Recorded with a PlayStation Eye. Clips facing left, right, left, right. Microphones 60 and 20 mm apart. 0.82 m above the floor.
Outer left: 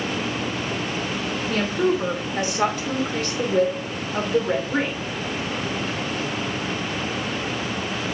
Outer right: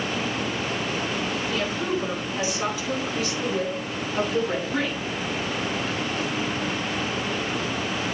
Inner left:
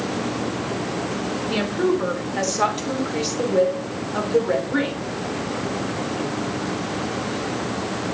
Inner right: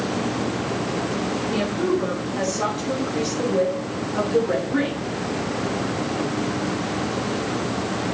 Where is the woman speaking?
75° left (ahead or behind), 3 m; by 5.1 s 35° left (ahead or behind), 3 m.